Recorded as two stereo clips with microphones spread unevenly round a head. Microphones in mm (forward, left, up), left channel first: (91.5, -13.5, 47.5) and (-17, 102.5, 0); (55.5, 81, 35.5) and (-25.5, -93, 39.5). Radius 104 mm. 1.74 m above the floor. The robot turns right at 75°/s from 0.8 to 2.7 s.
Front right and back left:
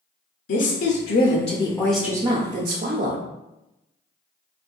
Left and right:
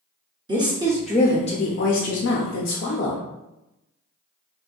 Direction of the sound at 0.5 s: 45° right.